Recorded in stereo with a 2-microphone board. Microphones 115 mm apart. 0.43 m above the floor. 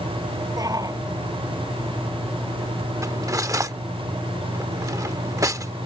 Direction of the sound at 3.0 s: 30° right (ahead or behind).